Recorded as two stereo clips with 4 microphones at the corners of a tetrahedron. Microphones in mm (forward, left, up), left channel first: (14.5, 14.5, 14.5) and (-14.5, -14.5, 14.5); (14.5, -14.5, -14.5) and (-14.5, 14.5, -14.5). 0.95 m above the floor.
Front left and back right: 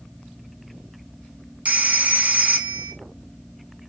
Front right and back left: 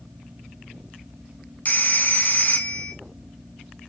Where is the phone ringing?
85° right, 0.6 m.